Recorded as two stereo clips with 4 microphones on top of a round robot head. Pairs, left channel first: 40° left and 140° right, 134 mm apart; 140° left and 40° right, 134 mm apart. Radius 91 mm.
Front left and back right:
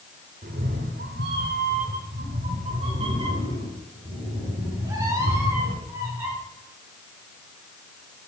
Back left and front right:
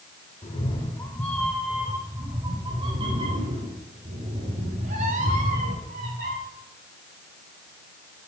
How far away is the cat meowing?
About 1.2 m.